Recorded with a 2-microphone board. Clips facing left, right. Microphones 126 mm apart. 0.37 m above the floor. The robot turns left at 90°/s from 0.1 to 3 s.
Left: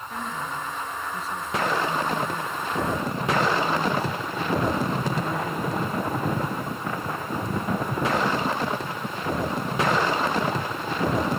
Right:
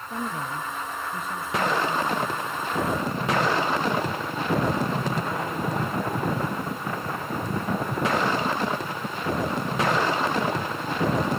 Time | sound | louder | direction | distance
0.1 | a woman speaking | right 2 dB | 25° right | 6.5 m